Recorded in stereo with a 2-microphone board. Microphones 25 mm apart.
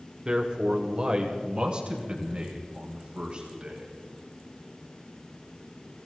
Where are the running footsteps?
I don't hear running footsteps.